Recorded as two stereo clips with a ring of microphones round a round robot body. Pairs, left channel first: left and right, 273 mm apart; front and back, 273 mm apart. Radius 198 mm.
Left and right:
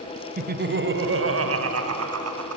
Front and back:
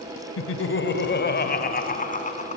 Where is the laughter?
30° right, 1.5 m; by 2.6 s 65° right, 4 m.